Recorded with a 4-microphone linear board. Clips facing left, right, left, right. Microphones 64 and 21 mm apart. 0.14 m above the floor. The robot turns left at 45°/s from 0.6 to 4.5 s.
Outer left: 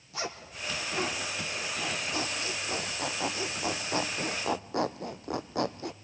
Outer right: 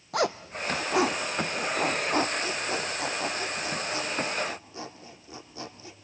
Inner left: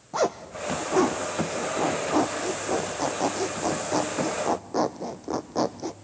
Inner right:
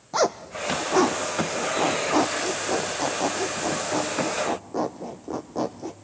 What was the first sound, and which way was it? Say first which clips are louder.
A zipper: outer right 10 dB, inner right 2 dB; 65° right (ahead or behind).